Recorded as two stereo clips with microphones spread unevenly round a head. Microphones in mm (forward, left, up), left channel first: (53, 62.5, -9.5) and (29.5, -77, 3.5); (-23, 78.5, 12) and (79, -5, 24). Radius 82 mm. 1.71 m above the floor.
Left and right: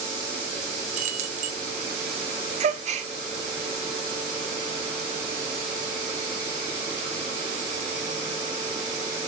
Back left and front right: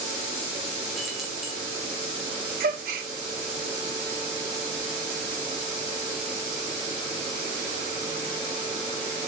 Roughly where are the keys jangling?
Behind right.